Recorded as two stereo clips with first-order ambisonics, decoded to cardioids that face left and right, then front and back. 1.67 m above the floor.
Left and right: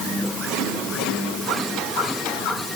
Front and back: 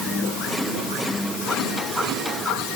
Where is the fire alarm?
No fire alarm in this recording.